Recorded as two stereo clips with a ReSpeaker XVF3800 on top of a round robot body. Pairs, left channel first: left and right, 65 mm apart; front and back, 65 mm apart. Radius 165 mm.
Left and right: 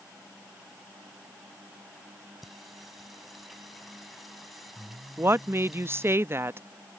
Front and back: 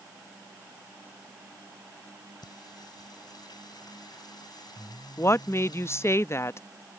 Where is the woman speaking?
45° right.